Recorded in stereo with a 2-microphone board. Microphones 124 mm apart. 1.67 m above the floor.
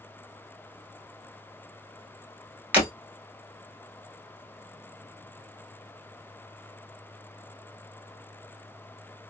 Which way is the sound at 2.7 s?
15° right (ahead or behind).